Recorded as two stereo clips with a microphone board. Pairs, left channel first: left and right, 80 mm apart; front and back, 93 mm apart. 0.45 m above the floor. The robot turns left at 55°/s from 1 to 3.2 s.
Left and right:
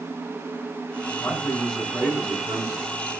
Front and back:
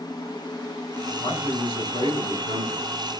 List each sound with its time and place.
1.2 s a man speaking: 30° left, 6 m; by 2.9 s 65° right, 6 m